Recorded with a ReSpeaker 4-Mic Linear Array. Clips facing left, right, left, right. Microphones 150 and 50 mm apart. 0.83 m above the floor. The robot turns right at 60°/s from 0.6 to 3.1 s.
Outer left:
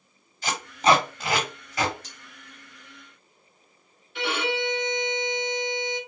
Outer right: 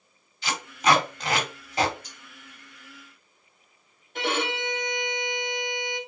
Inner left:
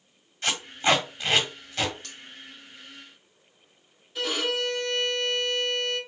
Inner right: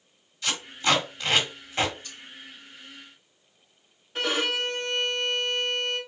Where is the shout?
No shout in this recording.